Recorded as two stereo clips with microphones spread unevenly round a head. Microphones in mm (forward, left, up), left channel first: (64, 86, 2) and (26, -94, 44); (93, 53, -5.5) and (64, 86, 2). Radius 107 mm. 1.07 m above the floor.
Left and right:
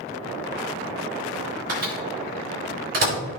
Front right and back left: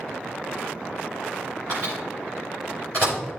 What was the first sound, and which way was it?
A microwave, 155° right.